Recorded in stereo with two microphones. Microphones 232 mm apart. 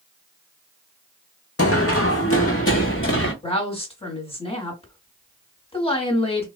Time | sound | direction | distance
1.6 | running footsteps | 75° left (ahead or behind) | 0.7 m
3.4 | a woman speaking | 25° left (ahead or behind) | 1.3 m